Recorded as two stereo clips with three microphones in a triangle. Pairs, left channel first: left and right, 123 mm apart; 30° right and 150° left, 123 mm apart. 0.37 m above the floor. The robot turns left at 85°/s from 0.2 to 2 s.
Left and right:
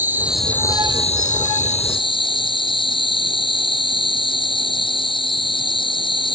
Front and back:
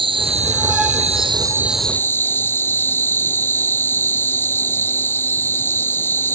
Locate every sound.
0.0 s an insect: 165° right; by 6.4 s 40° left